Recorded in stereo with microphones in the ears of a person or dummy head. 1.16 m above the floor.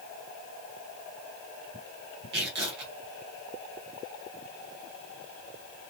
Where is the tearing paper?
55° right (ahead or behind), 0.9 m.